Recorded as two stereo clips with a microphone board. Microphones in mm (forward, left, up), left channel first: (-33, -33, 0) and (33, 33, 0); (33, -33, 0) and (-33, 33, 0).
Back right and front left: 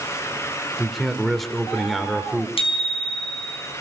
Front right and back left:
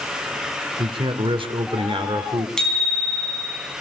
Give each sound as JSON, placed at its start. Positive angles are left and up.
{"t": 0.8, "sound": "a man speaking", "azimuth_deg": 135, "distance_m": 2.5}
{"t": 2.6, "sound": "a bicycle bell", "azimuth_deg": -125, "distance_m": 5.0}